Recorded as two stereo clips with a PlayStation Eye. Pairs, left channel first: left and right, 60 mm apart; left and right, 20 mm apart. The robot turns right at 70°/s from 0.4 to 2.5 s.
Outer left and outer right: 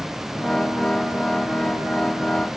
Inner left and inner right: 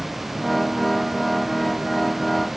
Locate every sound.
Only background noise.